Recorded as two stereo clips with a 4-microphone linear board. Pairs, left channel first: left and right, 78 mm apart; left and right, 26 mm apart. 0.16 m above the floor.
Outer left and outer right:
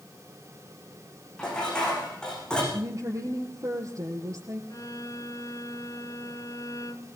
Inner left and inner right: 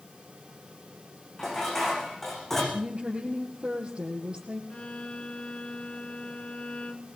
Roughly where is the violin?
Left.